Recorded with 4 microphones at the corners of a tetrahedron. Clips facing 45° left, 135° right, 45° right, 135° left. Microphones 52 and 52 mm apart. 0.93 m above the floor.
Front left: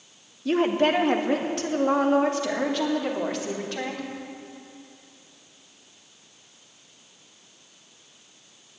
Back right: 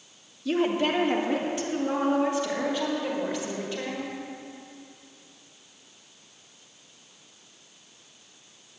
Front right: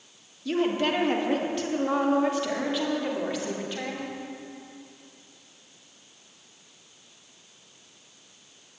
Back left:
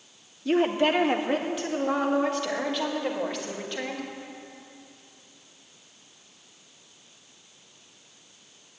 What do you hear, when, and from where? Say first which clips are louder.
0.5 s a woman speaking: front left 3 dB, back left 3 dB; 80° left, 1.0 m; by 4.1 s 35° left, 3.5 m